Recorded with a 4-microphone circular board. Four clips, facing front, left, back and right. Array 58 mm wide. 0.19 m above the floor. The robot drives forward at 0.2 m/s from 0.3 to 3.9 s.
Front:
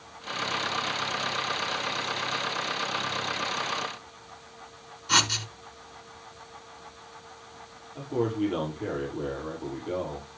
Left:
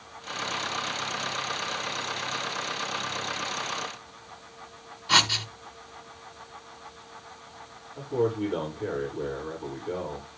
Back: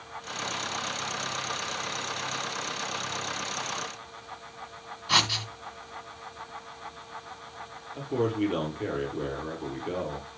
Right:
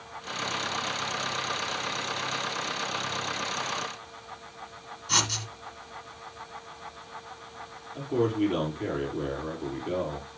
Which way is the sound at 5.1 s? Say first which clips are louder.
Left 6 dB, front 1 dB; 115° left.